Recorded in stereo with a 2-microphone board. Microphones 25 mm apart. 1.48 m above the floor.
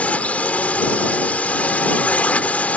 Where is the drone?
75° left (ahead or behind); by 2.8 s 85° left.